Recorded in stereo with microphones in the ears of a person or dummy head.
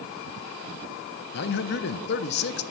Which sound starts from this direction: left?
A man speaking, at 1.3 s.